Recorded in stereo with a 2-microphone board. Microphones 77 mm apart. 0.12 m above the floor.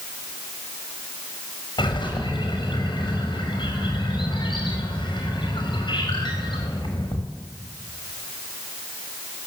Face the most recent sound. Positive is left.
turn(degrees=80)